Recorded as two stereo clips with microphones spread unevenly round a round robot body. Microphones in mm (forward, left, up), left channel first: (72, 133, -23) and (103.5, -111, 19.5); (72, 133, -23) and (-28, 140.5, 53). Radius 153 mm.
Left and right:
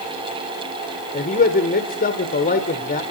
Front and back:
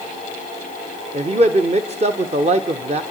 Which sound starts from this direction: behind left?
A man speaking, at 1.1 s.